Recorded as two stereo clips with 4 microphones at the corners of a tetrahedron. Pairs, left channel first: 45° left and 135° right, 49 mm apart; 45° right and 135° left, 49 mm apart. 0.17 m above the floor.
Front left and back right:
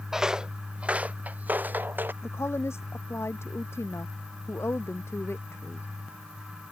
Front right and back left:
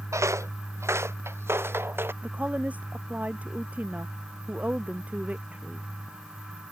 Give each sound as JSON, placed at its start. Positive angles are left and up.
{"t": 0.1, "sound": "footsteps", "azimuth_deg": 145}
{"t": 2.2, "sound": "a woman speaking", "azimuth_deg": 75}